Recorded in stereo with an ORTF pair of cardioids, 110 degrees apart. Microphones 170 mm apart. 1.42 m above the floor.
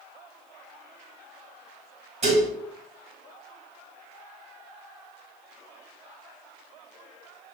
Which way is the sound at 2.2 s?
40° right.